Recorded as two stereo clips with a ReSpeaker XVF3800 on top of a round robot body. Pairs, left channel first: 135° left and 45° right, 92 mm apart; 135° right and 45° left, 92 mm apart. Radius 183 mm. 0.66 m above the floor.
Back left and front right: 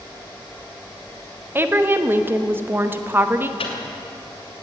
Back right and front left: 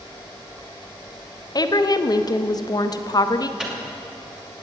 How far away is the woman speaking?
About 1.1 m.